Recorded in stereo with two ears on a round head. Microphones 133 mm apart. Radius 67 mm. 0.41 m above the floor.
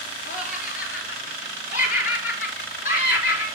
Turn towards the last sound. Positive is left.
turn(degrees=65)  # may be behind; listen again after turning